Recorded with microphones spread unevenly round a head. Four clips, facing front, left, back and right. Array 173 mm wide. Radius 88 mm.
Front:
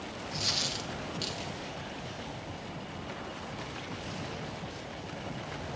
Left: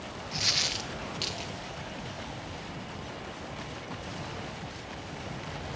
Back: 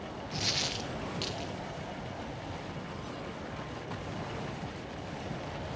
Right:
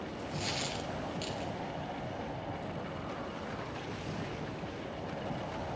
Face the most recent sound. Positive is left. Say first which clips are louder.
# left 1 dB, back 1 dB
turn(degrees=155)